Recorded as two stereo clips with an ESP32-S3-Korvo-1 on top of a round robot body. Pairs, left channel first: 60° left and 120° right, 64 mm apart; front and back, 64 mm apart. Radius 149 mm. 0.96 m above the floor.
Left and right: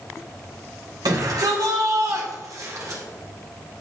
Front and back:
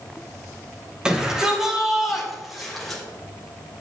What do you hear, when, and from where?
1.1 s a shout: 105° right, 6 m; by 3.0 s 85° right, 6 m